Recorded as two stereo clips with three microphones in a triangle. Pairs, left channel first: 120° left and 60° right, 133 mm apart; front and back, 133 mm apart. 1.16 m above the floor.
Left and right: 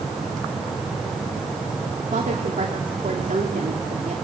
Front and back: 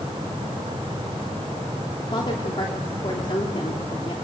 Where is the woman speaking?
50° right, 2.5 m.